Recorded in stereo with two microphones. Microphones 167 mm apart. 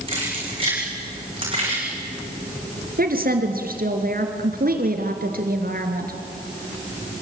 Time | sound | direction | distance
0.1 | keys jangling | 30° right (ahead or behind) | 9 m
3.0 | a woman speaking | 60° right (ahead or behind) | 3.5 m